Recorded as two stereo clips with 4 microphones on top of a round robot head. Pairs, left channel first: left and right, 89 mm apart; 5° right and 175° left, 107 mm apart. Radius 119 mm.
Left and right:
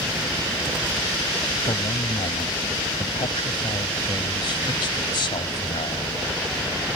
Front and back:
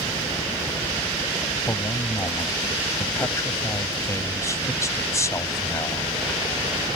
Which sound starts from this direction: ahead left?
A man speaking, at 1.7 s.